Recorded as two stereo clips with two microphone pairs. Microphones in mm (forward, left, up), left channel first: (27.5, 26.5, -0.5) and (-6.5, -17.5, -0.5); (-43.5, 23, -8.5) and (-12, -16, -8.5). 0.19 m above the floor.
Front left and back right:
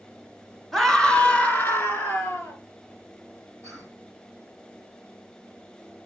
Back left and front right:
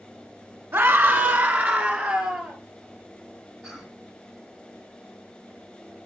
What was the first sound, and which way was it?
A scream, 30° right.